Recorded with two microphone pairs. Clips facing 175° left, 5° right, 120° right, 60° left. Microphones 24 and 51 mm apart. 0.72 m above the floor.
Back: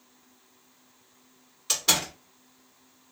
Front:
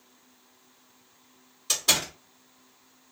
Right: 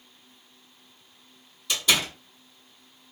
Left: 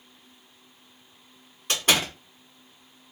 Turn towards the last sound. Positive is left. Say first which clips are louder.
# even, left 1 dB
turn(degrees=100)